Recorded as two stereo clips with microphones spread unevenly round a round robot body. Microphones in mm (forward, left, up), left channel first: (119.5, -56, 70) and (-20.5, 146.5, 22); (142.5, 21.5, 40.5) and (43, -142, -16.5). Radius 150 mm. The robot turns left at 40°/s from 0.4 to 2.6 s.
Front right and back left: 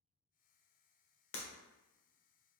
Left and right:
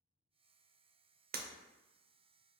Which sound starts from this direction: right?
Breaking glass, at 1.3 s.